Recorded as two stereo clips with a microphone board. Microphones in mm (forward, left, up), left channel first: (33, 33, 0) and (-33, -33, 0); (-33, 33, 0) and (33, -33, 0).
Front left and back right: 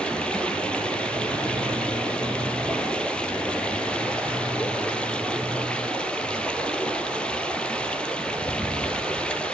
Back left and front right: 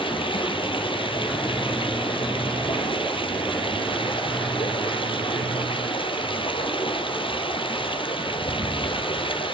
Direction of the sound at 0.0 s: 125° left.